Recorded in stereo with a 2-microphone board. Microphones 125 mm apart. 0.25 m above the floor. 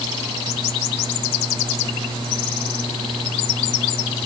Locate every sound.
Only background noise.